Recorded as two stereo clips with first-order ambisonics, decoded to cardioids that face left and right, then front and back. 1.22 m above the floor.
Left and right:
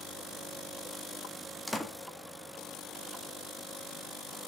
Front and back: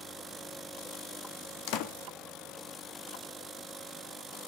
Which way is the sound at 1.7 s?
5° left.